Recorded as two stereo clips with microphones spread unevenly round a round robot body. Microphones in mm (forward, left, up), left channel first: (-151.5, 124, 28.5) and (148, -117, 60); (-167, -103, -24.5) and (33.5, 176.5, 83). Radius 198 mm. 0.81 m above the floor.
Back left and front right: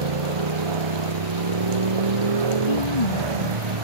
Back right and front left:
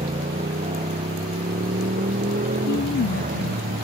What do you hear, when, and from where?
0.0 s a motorcycle: 20° right; by 3.9 s 15° right
2.7 s a woman speaking: 175° left